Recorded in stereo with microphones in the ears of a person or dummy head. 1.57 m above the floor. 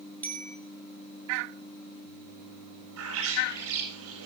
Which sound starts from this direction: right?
A bird, at 3.0 s.